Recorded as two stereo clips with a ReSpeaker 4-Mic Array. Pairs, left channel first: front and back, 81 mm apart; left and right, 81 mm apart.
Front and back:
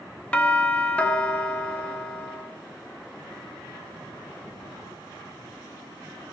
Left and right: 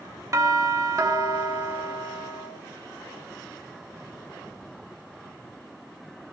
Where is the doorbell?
65° right, 1.4 m.